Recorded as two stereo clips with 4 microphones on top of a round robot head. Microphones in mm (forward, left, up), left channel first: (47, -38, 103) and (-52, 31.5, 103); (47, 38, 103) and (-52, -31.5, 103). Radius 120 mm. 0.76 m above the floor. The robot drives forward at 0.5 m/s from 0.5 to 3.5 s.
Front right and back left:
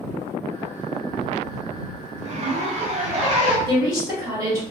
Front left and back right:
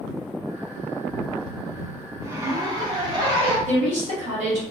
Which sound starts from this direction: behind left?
A zipper, at 2.2 s.